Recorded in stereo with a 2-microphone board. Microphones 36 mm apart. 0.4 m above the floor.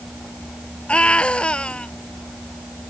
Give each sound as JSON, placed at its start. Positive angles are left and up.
{"t": 0.9, "sound": "a scream", "side_deg": 30}